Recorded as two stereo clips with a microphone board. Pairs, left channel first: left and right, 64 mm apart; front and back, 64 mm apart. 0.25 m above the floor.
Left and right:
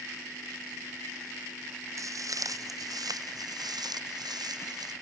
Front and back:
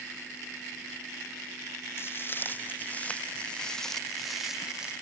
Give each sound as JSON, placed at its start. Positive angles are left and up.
{"t": 2.0, "sound": "footsteps", "azimuth_deg": -55}